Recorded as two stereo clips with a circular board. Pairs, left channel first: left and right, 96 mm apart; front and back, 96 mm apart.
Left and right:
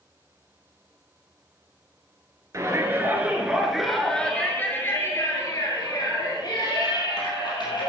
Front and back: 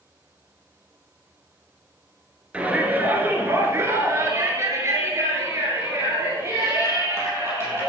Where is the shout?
115° right, 2 m; by 7.9 s 120° left, 4.5 m.